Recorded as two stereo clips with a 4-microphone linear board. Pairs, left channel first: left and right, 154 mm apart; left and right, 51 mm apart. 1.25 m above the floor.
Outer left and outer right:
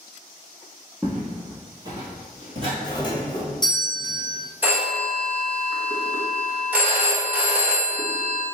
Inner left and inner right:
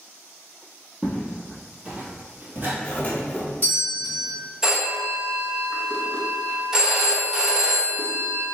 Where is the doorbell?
30° left (ahead or behind), 0.9 m.